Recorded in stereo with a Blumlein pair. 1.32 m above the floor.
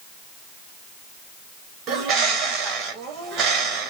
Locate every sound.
1.9 s a bird: 30° right, 1.1 m